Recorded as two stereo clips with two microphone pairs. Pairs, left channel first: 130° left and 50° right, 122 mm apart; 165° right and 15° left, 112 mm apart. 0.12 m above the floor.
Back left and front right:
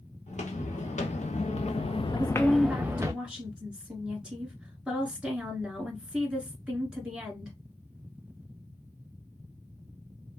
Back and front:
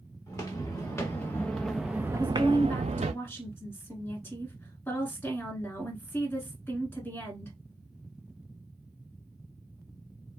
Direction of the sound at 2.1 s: 125° right.